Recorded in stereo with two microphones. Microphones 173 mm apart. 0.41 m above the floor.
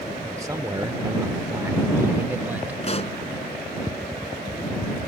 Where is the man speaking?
20° right (ahead or behind); by 2.7 s 10° right (ahead or behind).